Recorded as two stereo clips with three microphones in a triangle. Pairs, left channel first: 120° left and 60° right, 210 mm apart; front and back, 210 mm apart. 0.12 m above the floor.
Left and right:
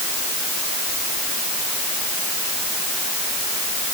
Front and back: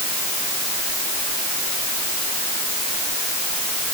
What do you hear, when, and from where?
Only background noise.